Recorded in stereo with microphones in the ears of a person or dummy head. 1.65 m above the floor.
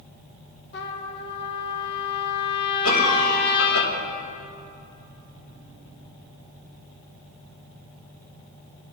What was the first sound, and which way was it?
A trumpet, 50° left (ahead or behind).